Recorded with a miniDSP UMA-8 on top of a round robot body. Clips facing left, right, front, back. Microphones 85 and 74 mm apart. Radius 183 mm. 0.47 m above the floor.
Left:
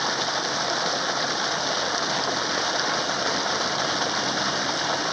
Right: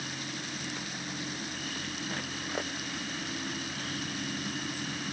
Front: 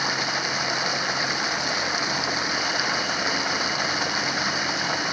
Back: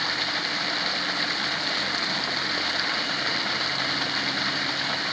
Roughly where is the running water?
Left.